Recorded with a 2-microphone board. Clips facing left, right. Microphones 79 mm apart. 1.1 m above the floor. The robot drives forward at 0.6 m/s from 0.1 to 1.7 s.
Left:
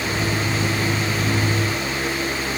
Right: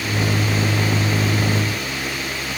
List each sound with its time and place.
Only background noise.